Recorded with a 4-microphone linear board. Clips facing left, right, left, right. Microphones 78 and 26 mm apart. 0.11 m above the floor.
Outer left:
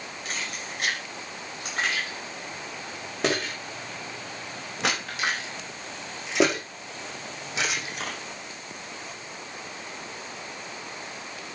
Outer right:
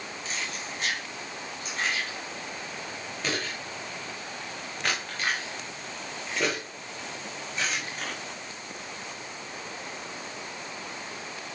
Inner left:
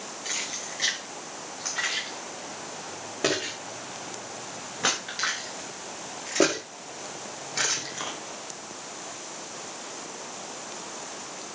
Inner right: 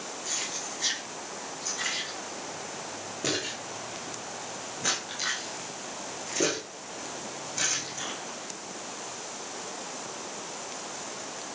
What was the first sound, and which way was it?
Keys jangling, 55° left (ahead or behind).